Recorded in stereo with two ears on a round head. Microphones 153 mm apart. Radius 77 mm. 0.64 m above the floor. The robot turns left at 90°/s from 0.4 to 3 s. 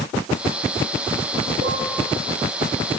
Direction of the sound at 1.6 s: 40° right (ahead or behind).